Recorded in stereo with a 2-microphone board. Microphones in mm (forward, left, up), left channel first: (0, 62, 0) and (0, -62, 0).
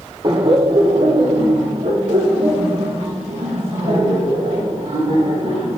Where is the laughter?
35° right (ahead or behind), 0.9 m; by 5.8 s 80° right, 4 m.